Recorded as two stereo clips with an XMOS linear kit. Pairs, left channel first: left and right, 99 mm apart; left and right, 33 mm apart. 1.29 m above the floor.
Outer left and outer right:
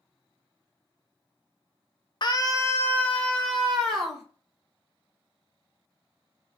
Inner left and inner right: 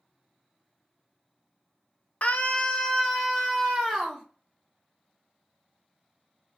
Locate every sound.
2.2 s a scream: 50° left (ahead or behind), 0.7 m; by 4.2 s centre (ahead or behind), 1.8 m